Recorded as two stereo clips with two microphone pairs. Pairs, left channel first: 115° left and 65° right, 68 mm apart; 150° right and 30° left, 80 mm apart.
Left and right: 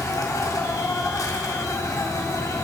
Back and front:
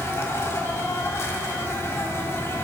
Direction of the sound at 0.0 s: 150° left.